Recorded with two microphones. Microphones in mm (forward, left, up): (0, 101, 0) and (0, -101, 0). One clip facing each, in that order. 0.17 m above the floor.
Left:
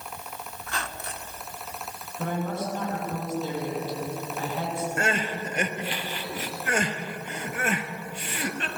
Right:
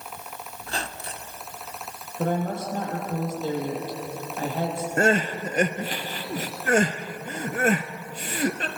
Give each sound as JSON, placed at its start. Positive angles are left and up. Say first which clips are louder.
{"t": 0.6, "sound": "a squeak", "louder": "right 3 dB", "side_deg": -35, "distance_m": 0.9}
{"t": 2.2, "sound": "a woman speaking", "louder": "right 3 dB", "side_deg": -45, "distance_m": 6.5}
{"t": 5.0, "sound": "crying", "louder": "right 10 dB", "side_deg": -45, "distance_m": 1.4}